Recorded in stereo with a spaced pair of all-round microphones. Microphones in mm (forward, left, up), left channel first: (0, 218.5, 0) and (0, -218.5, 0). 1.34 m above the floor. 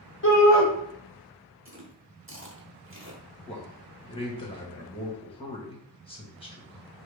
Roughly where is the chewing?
Right.